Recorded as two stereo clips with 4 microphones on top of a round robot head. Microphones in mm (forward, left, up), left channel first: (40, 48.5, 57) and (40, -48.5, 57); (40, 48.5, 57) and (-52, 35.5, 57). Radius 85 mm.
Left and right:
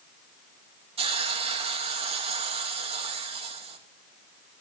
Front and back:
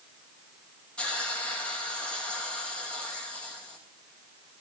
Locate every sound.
1.0 s a hiss: 75° right, 2.5 m